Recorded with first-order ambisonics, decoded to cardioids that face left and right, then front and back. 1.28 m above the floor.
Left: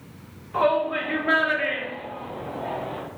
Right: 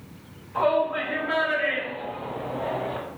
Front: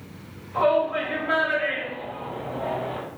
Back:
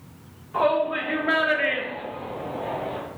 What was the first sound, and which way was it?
A shout, 125° left.